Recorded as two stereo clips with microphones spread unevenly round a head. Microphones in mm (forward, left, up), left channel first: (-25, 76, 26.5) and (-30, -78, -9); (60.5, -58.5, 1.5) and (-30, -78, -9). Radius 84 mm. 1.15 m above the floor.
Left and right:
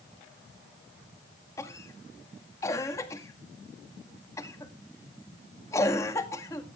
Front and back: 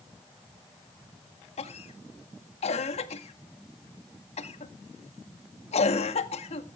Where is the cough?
10° left, 1.8 m.